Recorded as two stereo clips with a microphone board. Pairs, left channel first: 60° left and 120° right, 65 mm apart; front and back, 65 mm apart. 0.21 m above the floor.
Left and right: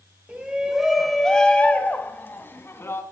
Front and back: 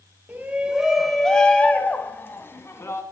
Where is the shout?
155° right, 1.6 m; by 3.0 s 30° left, 2.5 m.